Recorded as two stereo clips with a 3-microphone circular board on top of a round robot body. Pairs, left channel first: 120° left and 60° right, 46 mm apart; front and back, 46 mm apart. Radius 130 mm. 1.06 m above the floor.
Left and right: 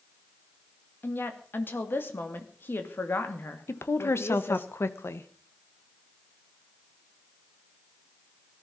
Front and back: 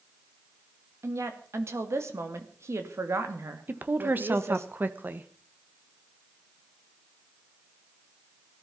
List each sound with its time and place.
1.0 s a woman speaking: 165° left, 2.5 m
3.7 s a woman speaking: 140° left, 1.7 m